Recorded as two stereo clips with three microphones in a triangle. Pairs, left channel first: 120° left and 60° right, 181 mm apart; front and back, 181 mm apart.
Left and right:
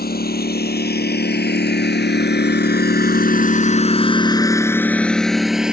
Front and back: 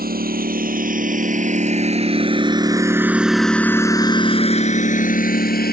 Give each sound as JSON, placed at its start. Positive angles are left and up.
{"t": 0.0, "sound": "a lawn mower", "azimuth_deg": 150}